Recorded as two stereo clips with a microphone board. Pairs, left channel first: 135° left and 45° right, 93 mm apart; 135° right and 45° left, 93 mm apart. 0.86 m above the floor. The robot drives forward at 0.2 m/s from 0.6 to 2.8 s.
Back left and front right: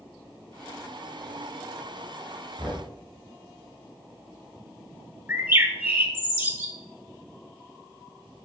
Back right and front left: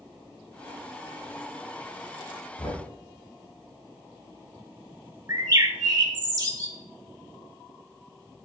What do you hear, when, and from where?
2.6 s knocking: 135° right, 2.5 m; by 2.9 s 140° right, 2.5 m
5.3 s a bird: 15° left, 0.8 m